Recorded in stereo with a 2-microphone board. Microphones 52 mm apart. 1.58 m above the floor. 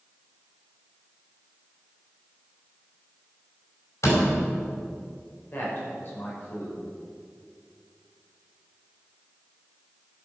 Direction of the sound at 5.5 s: 45° left (ahead or behind).